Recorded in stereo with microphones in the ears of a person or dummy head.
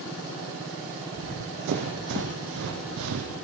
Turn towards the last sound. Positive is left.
turn(degrees=-60)  # may be behind; listen again after turning